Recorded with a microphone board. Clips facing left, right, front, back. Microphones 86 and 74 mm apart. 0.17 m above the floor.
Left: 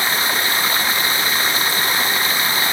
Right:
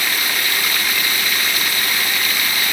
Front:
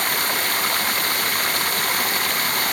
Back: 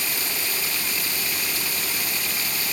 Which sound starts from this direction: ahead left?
Running water, at 0.0 s.